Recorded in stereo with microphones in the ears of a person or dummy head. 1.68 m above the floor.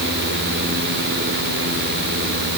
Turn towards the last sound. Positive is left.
No sound to turn to.